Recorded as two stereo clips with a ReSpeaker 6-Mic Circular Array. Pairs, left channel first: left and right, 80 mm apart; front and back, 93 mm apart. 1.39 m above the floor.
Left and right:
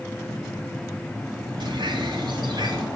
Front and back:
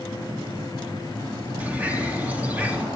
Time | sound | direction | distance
1.6 | a bird | 105° right | 3.5 m